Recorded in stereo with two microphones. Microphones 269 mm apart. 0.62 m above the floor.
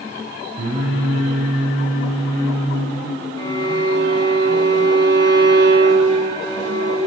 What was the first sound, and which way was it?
Singing, 65° right (ahead or behind).